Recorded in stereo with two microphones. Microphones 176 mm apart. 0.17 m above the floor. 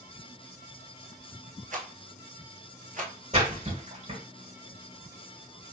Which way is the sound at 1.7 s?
50° right (ahead or behind).